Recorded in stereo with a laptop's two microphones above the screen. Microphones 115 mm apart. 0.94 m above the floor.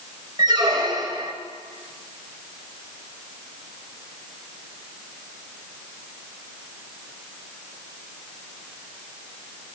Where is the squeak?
35° right (ahead or behind), 0.9 m.